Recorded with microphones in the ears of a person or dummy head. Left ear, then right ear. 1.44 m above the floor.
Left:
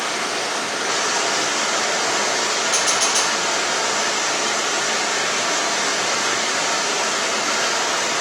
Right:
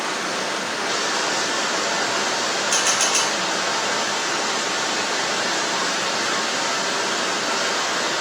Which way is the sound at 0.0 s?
65° left (ahead or behind).